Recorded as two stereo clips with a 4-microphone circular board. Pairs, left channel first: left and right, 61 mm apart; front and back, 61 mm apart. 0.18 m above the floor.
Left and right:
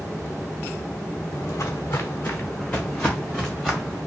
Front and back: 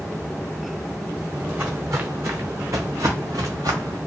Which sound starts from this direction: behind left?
Footsteps, at 1.3 s.